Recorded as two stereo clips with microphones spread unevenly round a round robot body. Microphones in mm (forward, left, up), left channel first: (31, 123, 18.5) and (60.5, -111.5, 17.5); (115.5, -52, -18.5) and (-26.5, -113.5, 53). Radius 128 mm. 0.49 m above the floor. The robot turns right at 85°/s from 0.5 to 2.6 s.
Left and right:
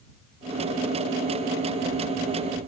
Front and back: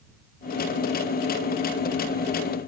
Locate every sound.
Only background noise.